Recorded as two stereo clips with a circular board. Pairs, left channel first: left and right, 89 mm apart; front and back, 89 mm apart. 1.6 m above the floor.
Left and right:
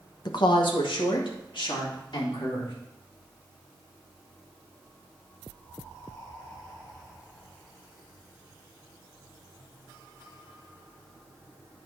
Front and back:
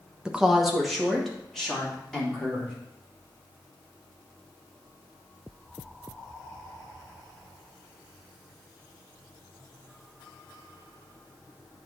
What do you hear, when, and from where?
0.2 s a woman speaking: 100° left, 0.9 m; by 2.7 s 80° left, 4 m